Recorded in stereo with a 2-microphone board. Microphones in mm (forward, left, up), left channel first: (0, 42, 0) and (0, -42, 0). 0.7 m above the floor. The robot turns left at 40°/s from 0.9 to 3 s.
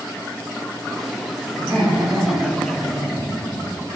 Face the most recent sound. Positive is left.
turn(degrees=-130)